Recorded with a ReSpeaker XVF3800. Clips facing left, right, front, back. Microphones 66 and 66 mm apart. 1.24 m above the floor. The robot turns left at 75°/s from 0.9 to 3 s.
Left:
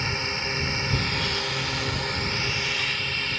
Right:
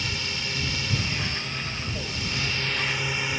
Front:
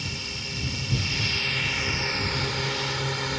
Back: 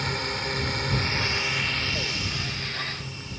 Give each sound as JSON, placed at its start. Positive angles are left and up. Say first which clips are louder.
{"t": 0.0, "sound": "a drone", "louder": "left 3 dB, back 7 dB", "azimuth_deg": 145}